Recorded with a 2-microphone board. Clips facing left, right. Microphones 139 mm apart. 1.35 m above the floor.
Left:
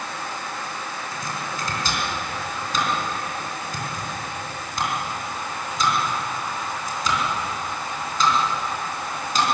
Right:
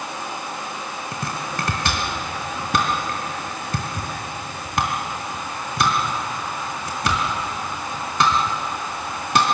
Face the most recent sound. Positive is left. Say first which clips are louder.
# right 4 dB
turn(degrees=-70)  # may be behind; listen again after turning